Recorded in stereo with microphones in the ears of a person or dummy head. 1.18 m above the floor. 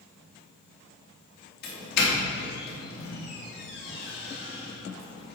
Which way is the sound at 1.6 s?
65° left (ahead or behind).